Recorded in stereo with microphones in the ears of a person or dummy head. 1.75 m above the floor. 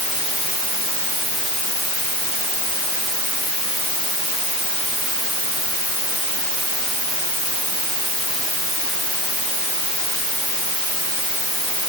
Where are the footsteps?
No footsteps in this recording.